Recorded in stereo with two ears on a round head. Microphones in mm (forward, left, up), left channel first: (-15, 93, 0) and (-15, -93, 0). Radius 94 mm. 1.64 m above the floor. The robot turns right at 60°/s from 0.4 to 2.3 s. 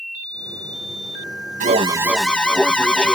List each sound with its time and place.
1.6 s an alarm: 35° right; by 3.2 s 5° left